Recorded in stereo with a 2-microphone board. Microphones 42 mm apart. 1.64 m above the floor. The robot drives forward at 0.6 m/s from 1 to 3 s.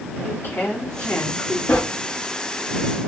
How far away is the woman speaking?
About 3.5 m.